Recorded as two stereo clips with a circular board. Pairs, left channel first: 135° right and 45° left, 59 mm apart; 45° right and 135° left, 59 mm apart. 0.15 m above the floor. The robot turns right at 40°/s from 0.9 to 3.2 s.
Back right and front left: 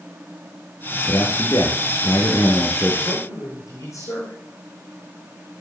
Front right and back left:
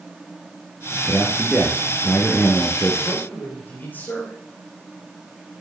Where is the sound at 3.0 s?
115° right, 9 m; by 4.4 s 105° right, 9 m.